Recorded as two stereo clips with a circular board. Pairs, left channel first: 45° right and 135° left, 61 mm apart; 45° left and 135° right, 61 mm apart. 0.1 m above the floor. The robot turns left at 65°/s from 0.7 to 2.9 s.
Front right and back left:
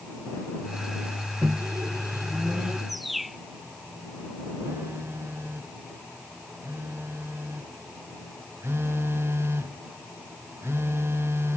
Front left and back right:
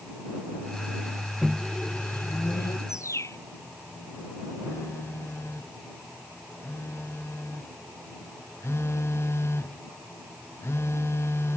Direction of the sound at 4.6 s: 90° left.